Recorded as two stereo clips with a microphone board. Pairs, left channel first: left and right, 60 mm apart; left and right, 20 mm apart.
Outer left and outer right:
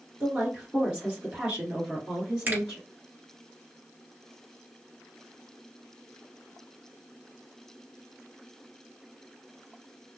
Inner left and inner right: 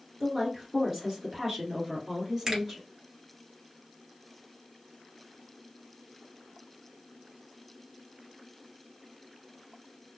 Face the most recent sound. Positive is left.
turn(degrees=-30)  # may be behind; listen again after turning